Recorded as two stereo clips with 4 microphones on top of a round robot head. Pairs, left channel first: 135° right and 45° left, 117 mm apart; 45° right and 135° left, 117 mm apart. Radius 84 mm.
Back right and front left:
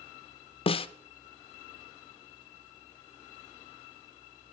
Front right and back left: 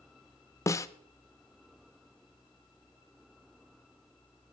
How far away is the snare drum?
About 0.5 m.